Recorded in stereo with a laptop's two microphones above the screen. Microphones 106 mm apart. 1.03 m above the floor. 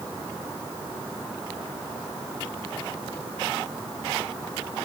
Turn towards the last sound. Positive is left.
No sound to turn to.